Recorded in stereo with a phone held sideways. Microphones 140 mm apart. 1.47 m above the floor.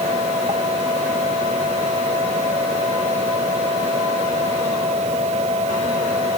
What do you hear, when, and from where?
0.0 s a fan: 50° right (ahead or behind)